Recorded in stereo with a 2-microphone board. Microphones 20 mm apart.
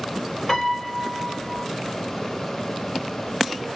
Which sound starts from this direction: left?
A piano, at 0.5 s.